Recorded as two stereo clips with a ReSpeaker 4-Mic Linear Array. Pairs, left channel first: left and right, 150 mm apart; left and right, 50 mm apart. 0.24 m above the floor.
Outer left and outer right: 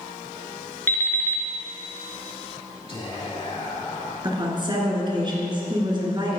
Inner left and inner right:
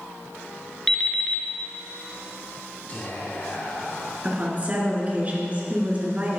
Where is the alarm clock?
15° left (ahead or behind), 1.5 m.